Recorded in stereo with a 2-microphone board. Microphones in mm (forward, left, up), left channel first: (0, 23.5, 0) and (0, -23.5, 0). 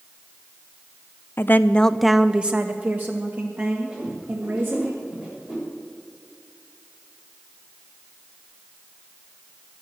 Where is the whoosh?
25° right (ahead or behind), 7 m.